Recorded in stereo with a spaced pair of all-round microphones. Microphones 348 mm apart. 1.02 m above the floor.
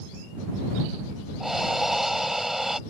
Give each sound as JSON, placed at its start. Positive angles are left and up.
{"t": 1.4, "sound": "breathing", "side_deg": 0}